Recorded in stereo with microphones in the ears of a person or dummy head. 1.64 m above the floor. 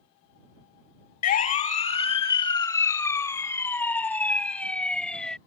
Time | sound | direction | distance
1.2 | a siren | 50° left (ahead or behind) | ?